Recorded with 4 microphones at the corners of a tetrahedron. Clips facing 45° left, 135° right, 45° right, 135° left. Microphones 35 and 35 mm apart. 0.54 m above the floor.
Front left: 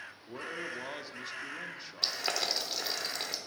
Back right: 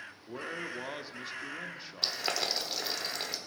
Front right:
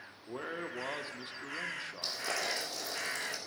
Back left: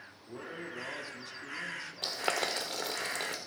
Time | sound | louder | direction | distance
0.3 | a man speaking | back right 1 dB, front right 3 dB | 55° right | 0.7 m
2.0 | boiling | even, back left 4 dB | 135° left | 1.2 m